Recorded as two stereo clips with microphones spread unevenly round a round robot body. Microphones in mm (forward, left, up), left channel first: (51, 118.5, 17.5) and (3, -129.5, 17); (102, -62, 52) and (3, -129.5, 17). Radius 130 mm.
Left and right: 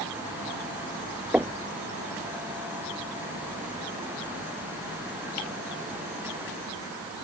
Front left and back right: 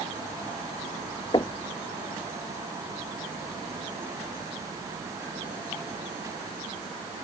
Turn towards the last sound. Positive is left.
turn(degrees=-15)